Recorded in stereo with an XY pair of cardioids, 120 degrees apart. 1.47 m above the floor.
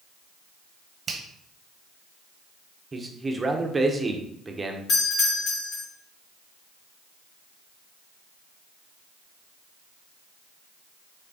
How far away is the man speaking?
About 1.1 m.